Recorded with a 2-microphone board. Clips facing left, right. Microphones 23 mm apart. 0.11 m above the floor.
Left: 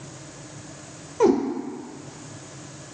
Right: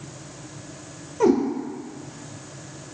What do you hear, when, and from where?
1.2 s a cat meowing: 5° left (ahead or behind), 1.1 m